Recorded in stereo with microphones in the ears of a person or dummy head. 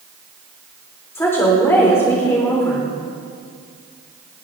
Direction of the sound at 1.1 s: 10° left (ahead or behind).